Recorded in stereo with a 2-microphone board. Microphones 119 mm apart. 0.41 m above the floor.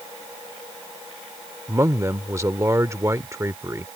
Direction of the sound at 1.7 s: 25° right (ahead or behind).